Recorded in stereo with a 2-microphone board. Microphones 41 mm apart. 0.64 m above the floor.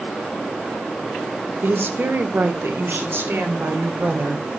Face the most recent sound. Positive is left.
turn(degrees=-65)  # may be behind; listen again after turning